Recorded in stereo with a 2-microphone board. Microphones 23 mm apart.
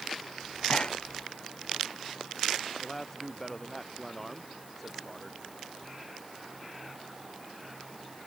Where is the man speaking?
15° left (ahead or behind).